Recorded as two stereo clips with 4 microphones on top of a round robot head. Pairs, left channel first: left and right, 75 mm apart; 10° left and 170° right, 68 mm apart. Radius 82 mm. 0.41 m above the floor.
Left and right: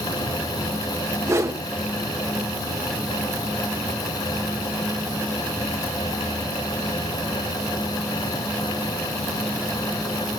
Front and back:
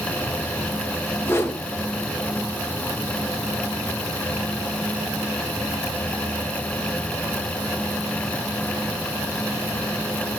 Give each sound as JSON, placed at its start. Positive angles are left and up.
{"t": 1.2, "sound": "a whoosh", "azimuth_deg": -45, "distance_m": 1.9}